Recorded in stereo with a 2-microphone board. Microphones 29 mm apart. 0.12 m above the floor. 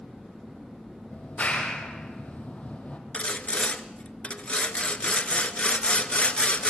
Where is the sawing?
45° left (ahead or behind), 1.1 m.